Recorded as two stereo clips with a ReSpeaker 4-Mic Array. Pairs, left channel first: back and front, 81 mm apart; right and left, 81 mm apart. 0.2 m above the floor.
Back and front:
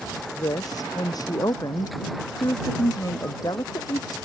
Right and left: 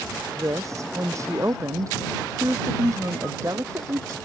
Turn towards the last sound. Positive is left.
turn(degrees=140)